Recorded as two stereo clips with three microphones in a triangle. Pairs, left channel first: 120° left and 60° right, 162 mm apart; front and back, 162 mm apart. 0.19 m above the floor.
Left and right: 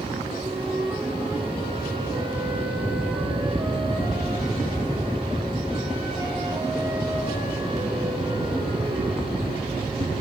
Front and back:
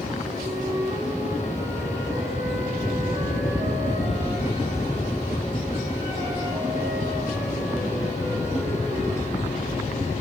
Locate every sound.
0.4 s a flute: 115° right, 6 m